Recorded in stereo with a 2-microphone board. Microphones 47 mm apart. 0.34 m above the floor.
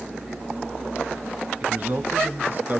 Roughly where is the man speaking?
Right.